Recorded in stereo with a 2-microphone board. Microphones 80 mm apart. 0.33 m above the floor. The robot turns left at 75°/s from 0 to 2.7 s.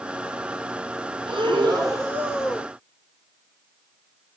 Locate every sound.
1.3 s breathing: 85° right, 2.5 m; by 2.7 s 165° left, 2.5 m